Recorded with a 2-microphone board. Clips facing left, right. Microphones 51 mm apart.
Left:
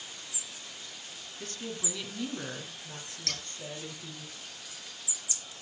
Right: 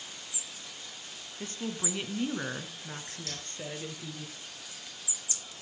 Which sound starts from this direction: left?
Scissors, at 3.3 s.